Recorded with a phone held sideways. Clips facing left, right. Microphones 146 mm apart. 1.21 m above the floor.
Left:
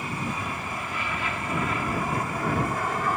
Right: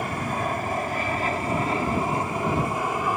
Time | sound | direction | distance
0.0 | an aircraft | 60° right (ahead or behind) | ?